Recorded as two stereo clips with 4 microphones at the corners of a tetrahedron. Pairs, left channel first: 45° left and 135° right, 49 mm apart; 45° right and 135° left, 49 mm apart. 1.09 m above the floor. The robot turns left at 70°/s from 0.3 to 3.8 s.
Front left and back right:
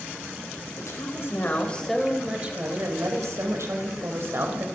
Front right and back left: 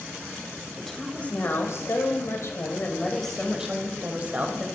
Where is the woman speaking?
45° left, 6.5 m; by 4.6 s 165° right, 6.5 m.